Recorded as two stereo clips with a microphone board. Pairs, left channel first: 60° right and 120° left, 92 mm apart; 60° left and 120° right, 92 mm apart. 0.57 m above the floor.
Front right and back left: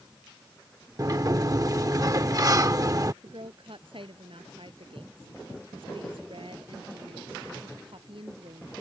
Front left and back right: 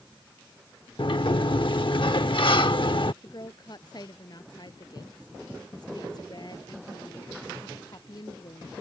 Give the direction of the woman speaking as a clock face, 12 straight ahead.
9 o'clock.